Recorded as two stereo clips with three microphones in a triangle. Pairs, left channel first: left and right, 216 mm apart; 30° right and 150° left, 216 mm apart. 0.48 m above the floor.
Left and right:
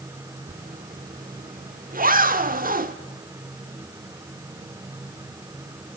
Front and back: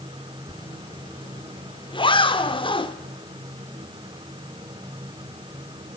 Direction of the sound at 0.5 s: 85° right.